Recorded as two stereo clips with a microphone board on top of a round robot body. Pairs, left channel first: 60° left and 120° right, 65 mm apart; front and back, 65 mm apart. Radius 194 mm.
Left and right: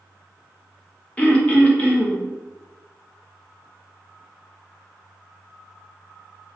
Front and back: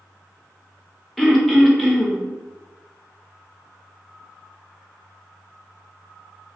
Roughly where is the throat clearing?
Left.